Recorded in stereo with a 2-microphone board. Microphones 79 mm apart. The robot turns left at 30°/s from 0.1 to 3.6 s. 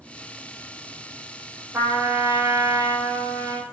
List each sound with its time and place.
1.7 s a trumpet: 30° right, 6 m; by 3.6 s 85° right, 6 m